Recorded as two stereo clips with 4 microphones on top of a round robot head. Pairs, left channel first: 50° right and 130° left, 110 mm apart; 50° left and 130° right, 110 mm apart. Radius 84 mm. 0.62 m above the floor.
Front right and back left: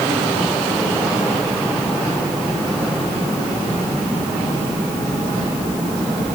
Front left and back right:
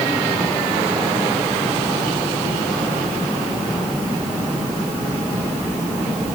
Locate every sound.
Only background noise.